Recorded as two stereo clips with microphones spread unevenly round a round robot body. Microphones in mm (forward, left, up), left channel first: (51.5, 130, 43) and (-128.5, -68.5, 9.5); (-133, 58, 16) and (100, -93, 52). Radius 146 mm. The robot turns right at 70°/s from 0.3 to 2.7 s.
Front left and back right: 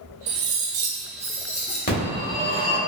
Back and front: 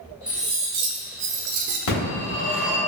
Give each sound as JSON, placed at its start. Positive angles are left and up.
{"t": 0.3, "sound": "cutlery clinking", "azimuth_deg": -120, "distance_m": 0.5}
{"t": 1.9, "sound": "a phone ringing", "azimuth_deg": 105, "distance_m": 1.3}